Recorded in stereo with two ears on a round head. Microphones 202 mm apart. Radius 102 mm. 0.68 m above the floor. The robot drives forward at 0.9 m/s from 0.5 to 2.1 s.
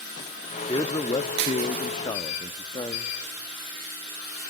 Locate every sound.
0.7 s a man speaking: 15° left (ahead or behind), 0.9 m; by 3.1 s 20° left (ahead or behind), 0.8 m